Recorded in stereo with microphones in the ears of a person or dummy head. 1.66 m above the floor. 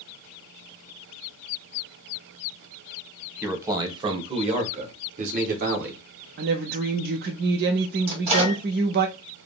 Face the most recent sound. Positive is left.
turn(degrees=-35)  # may be behind; listen again after turning